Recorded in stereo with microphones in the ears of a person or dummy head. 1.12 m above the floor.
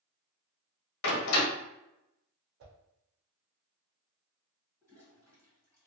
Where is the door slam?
80° left, 0.9 m.